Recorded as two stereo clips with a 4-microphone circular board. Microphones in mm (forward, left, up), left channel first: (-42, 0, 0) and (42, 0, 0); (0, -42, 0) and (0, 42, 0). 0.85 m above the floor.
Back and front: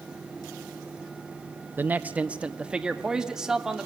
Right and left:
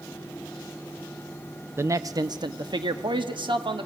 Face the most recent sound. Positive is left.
turn(degrees=85)